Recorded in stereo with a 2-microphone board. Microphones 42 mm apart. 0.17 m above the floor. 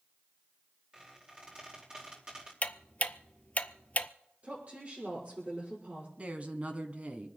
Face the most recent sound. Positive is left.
turn(degrees=-35)  # may be behind; listen again after turning